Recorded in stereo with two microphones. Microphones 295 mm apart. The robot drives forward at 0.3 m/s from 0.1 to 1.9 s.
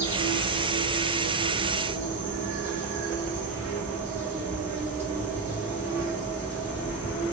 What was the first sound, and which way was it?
An insect, 5° right (ahead or behind).